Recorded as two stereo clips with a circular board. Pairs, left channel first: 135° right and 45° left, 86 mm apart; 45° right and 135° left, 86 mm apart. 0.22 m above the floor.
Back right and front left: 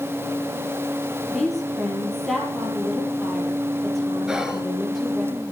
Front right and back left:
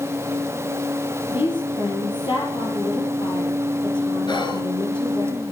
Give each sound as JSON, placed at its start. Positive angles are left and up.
{"t": 1.3, "sound": "a woman speaking", "azimuth_deg": -45, "distance_m": 6.5}
{"t": 4.3, "sound": "whispering", "azimuth_deg": -35, "distance_m": 3.0}